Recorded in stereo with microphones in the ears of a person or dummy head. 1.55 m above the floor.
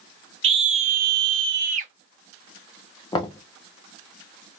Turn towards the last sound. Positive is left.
turn(degrees=25)  # may be behind; listen again after turning